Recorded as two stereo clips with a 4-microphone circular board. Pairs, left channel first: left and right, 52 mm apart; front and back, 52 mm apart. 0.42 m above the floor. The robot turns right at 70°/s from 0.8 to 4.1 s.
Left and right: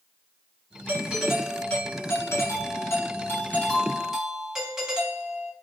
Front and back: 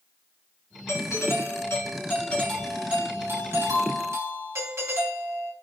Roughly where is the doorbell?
Ahead right.